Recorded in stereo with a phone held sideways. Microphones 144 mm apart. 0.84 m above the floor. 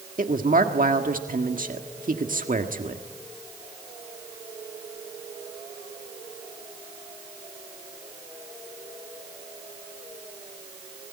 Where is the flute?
No flute in this recording.